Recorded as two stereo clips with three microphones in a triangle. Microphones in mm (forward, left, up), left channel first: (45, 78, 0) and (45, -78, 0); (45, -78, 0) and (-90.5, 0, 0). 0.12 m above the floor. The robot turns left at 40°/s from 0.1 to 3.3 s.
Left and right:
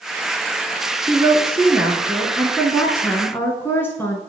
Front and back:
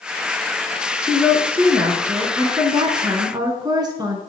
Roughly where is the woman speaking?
Behind right.